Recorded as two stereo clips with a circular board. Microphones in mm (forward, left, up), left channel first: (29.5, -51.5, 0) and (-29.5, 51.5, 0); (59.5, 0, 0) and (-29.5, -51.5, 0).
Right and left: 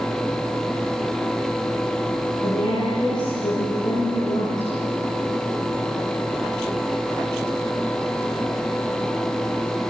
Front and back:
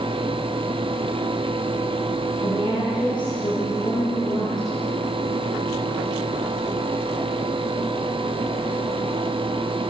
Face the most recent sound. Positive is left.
turn(degrees=-10)